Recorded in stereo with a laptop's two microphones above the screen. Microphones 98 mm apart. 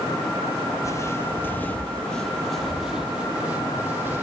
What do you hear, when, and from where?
0.8 s footsteps: 30° left (ahead or behind), 1.3 m; by 4.2 s 20° right (ahead or behind), 2.0 m